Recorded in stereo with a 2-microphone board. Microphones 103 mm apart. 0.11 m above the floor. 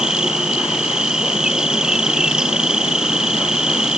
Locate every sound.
0.0 s an insect: 5° right (ahead or behind)